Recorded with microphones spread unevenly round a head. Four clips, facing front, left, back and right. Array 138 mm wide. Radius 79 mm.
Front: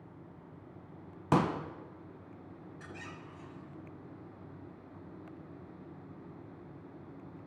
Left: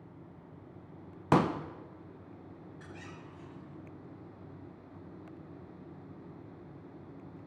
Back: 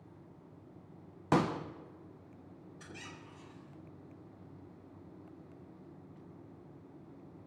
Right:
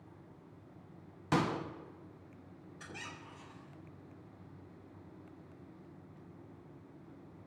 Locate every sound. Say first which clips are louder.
1.3 s a pop: left 6 dB, front 1 dB; 110° left, 1.1 m
2.8 s a squeak: right 2 dB, front 2 dB; 80° right, 6.5 m